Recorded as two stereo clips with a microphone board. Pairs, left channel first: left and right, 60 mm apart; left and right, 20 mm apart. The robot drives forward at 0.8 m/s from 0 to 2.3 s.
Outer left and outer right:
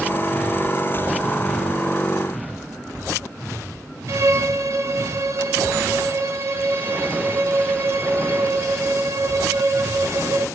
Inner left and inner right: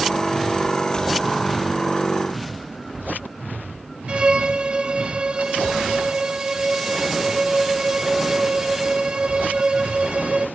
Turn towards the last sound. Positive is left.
turn(degrees=-60)  # may be behind; listen again after turning